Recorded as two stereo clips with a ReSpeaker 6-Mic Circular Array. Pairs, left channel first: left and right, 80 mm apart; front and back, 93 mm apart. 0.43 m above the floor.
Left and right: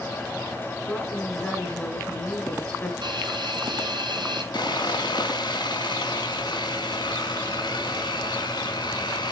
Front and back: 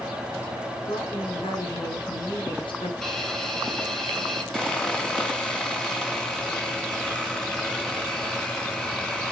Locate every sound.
0.9 s a woman speaking: 20° left, 4.5 m
3.0 s a hiss: 90° right, 3 m
4.5 s sawing: 80° left, 3 m